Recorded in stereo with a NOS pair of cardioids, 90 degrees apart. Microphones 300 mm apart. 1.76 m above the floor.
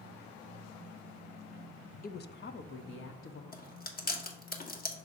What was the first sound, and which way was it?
A woman speaking, 30° left.